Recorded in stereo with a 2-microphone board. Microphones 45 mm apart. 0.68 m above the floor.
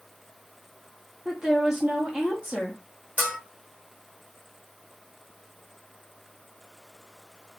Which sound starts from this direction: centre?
A woman speaking, at 1.2 s.